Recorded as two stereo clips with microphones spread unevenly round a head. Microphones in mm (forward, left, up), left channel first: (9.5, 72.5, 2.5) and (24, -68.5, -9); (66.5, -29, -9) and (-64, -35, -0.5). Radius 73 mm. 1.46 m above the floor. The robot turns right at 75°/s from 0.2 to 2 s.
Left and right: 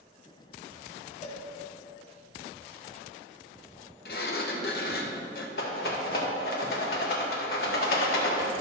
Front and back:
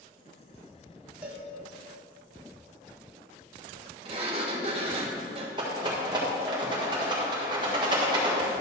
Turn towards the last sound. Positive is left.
turn(degrees=120)